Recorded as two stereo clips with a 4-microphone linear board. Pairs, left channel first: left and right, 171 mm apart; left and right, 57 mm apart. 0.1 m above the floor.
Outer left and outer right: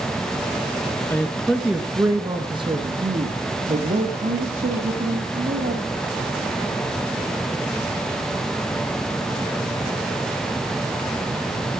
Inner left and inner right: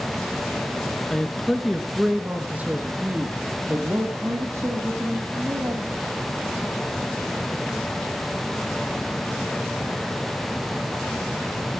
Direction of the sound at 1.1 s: 15° left (ahead or behind).